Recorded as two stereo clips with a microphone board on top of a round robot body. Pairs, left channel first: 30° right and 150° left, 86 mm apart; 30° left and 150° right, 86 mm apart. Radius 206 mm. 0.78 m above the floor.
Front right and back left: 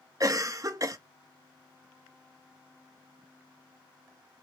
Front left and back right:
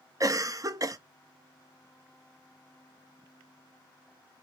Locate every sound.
0.2 s a cough: 175° right, 0.9 m